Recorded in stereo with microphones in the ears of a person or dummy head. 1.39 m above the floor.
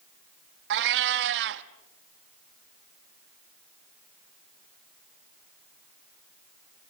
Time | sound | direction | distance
0.7 | a cat meowing | 60° right (ahead or behind) | 1.2 m